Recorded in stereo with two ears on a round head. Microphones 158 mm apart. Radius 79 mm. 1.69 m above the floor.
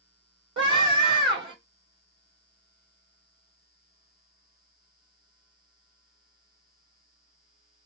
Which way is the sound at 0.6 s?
30° right (ahead or behind).